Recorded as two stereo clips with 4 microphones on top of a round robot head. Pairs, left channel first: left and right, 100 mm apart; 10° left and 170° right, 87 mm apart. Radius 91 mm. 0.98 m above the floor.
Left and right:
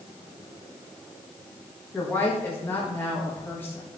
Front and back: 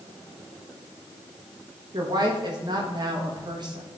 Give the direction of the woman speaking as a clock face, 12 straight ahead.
7 o'clock.